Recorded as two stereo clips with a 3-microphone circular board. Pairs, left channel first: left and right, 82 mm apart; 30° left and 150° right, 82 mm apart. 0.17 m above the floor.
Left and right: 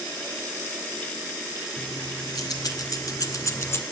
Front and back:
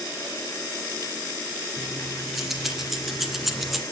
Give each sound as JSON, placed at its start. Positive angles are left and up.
{"t": 1.8, "sound": "keys jangling", "azimuth_deg": 125, "distance_m": 2.0}